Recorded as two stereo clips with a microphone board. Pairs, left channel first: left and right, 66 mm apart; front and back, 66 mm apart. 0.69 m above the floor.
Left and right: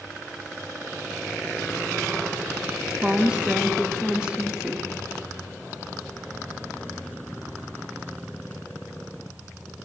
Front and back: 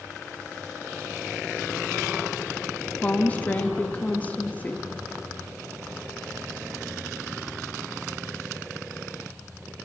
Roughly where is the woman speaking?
Ahead right.